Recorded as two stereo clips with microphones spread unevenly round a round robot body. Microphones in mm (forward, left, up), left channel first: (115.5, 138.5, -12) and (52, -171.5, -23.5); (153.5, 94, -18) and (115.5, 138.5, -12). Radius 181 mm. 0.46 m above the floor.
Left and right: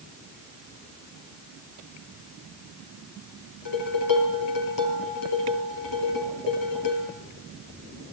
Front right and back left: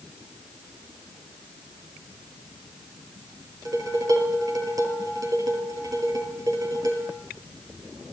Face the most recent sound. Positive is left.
turn(degrees=120)